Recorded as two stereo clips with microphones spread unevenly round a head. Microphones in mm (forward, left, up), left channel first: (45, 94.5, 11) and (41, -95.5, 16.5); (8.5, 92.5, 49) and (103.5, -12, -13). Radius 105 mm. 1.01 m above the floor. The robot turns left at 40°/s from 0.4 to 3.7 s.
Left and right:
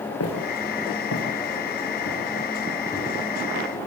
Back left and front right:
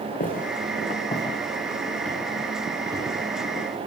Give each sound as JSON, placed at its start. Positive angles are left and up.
{"t": 0.2, "sound": "footsteps", "azimuth_deg": 110, "distance_m": 8.0}